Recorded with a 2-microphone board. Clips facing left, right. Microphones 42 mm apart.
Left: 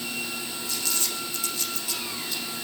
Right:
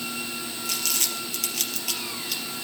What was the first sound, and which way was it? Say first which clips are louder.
Crumpling: right 3 dB; 65° right (ahead or behind).